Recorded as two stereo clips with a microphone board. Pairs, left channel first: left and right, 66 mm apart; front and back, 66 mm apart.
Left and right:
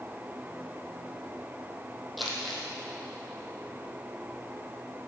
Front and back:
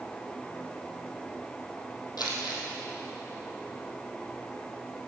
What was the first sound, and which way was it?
Crumpling, straight ahead.